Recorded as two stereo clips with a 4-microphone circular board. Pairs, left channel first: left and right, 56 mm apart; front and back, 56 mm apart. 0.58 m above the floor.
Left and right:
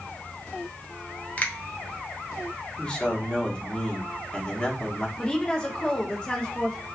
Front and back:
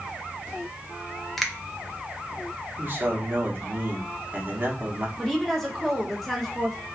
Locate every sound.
1.4 s a finger snap: 80° left, 0.5 m
2.8 s a man speaking: 150° left, 0.8 m
5.2 s a woman speaking: 75° left, 0.6 m